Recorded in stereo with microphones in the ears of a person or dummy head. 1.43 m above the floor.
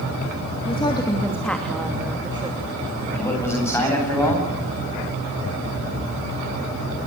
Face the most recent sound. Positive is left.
turn(degrees=10)  # may be behind; listen again after turning